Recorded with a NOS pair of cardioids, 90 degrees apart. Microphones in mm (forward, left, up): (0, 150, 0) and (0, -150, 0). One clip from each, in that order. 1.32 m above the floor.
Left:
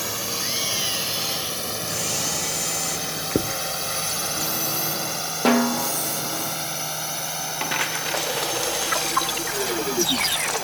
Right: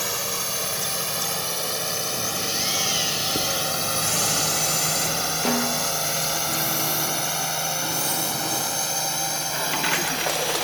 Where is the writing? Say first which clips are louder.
Even; 70° left.